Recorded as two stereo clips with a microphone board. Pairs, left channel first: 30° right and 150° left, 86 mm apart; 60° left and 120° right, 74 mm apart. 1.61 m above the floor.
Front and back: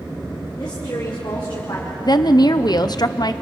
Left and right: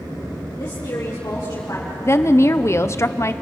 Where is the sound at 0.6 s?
5° left, 4.5 m.